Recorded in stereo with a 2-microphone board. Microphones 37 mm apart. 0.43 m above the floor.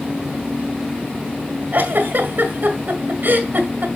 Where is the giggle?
60° right (ahead or behind), 1.7 m.